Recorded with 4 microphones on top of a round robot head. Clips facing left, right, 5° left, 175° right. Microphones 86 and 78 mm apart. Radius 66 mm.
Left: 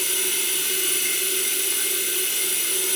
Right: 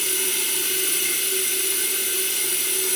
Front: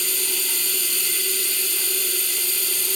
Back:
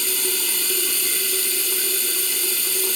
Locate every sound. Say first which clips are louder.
0.0 s running water: right 1 dB, back 3 dB; 175° right, 3 m